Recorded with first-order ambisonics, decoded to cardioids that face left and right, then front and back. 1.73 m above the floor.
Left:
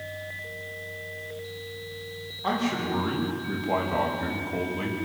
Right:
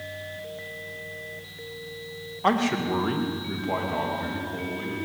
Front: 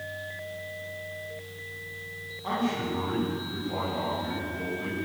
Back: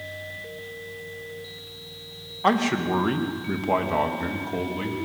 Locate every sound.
2.4 s a man speaking: 150° right, 2.5 m; by 5.0 s 155° left, 4 m